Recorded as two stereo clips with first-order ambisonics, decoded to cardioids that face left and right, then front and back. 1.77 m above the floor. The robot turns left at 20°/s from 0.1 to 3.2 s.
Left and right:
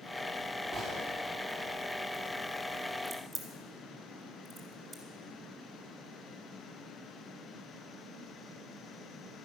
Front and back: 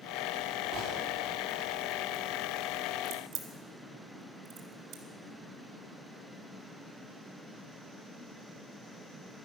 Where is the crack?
165° right, 2 m; by 5.0 s 170° right, 2 m.